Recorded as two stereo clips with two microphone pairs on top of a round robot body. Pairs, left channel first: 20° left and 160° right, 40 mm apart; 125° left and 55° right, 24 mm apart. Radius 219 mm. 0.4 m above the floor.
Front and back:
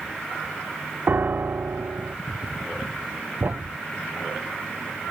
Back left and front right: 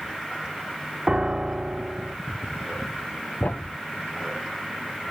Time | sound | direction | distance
1.1 | a piano | 115° right | ?
3.4 | a thud | 160° left | ?